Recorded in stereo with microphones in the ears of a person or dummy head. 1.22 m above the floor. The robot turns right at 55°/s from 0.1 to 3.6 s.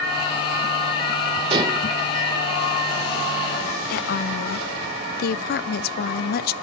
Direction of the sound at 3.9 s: 45° left (ahead or behind).